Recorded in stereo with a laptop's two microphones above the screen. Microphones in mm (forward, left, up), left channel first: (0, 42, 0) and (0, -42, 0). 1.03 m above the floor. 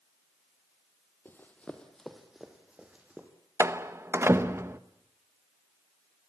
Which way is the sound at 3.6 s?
30° right (ahead or behind).